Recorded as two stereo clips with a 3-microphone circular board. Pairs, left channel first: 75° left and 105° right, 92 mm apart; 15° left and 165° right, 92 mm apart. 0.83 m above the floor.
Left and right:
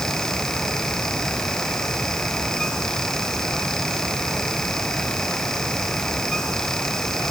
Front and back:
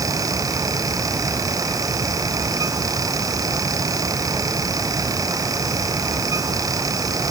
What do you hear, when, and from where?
Only background noise.